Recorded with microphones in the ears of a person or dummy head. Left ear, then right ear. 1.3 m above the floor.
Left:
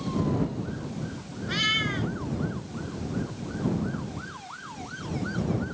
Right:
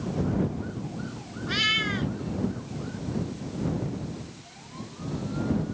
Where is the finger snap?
I don't hear a finger snap.